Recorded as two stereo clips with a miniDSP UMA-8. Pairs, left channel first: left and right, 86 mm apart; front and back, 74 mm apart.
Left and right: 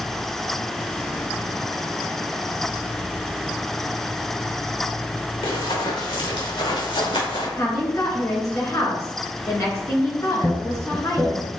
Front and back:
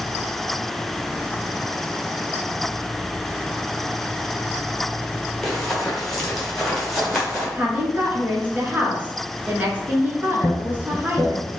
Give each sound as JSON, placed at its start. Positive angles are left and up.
{"t": 5.4, "sound": "running footsteps", "azimuth_deg": 85, "distance_m": 2.0}
{"t": 7.6, "sound": "a woman speaking", "azimuth_deg": 120, "distance_m": 1.7}
{"t": 10.4, "sound": "laughter", "azimuth_deg": 10, "distance_m": 1.3}